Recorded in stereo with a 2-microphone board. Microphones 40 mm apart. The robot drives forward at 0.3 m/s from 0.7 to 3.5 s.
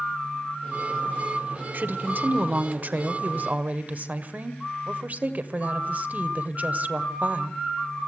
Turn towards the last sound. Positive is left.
turn(degrees=-45)  # may be behind; listen again after turning